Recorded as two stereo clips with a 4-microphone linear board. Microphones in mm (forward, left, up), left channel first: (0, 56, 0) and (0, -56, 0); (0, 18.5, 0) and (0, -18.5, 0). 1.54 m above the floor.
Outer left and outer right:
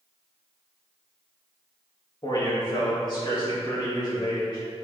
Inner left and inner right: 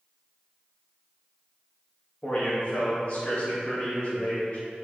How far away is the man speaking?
About 2 m.